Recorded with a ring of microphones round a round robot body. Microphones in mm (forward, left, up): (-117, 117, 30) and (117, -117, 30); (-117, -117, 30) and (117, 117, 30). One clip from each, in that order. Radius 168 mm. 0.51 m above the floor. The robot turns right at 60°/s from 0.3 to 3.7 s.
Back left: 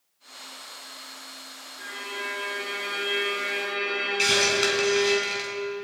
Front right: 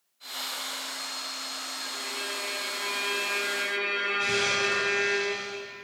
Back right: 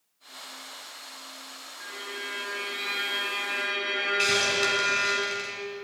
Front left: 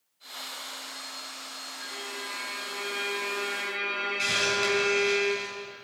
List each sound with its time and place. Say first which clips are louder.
1.8 s a violin: back left 4 dB, back right 2 dB; 120° left, 6.5 m; by 5.2 s 125° right, 6.5 m
4.2 s a hiss: back left 7 dB, back right 1 dB; 150° left, 5 m